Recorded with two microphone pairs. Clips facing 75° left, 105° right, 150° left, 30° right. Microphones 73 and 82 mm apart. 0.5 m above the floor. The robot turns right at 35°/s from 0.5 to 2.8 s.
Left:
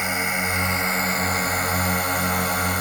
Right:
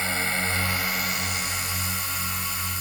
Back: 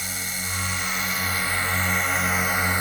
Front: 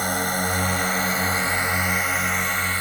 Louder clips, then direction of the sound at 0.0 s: Left 3 dB, front 10 dB; straight ahead.